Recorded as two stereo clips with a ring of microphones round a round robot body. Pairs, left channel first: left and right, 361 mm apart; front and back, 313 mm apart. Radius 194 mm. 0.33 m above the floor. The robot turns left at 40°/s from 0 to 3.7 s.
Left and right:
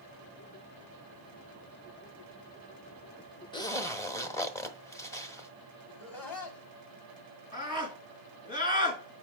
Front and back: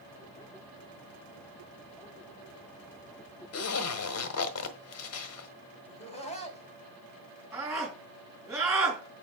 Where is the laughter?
70° left, 3 m.